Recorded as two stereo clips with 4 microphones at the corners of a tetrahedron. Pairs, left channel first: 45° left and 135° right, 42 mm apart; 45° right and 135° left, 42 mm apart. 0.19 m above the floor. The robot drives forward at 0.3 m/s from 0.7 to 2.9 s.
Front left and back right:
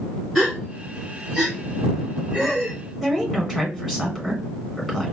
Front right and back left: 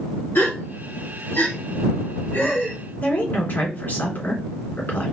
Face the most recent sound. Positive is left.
turn(degrees=-55)